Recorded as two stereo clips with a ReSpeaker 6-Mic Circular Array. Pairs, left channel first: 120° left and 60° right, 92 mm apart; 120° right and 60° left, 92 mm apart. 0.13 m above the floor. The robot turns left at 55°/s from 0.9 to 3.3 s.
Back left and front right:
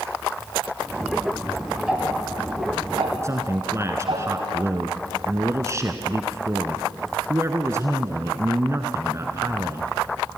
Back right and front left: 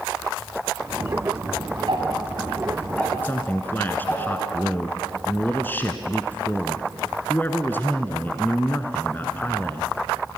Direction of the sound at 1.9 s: 20° left.